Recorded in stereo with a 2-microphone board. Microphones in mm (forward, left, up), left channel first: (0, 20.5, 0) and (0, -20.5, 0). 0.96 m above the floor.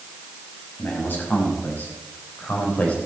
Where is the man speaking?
55° left (ahead or behind), 5.5 m; by 3.0 s 40° left (ahead or behind), 3 m.